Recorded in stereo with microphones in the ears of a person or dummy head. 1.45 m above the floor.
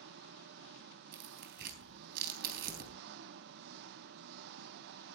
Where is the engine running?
60° right (ahead or behind), 0.8 m.